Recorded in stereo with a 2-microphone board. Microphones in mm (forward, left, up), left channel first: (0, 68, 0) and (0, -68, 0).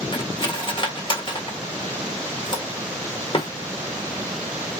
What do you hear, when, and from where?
0.1 s cutlery clinking: 40° left (ahead or behind), 1.2 m